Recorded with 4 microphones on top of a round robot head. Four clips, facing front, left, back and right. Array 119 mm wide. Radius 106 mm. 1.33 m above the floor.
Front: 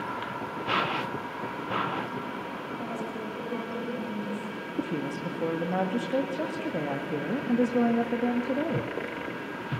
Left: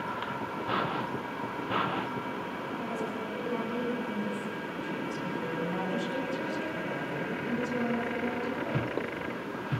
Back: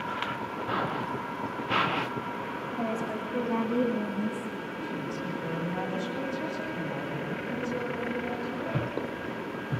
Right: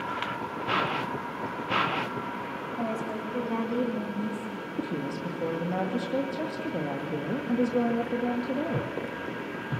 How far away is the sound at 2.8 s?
About 4 m.